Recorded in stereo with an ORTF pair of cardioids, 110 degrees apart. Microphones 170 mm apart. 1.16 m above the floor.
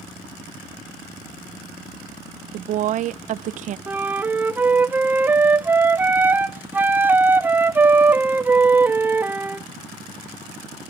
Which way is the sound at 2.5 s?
50° right.